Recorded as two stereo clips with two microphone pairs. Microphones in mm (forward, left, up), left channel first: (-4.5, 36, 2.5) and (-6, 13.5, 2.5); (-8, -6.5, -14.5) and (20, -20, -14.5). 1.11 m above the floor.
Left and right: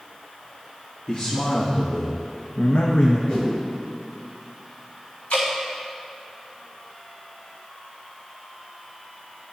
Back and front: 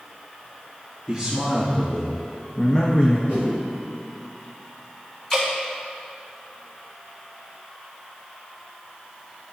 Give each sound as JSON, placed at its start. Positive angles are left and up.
{"t": 1.1, "sound": "a man speaking", "azimuth_deg": 60, "distance_m": 1.5}
{"t": 3.3, "sound": "a whoosh", "azimuth_deg": 130, "distance_m": 2.0}
{"t": 5.3, "sound": "dripping", "azimuth_deg": 80, "distance_m": 3.0}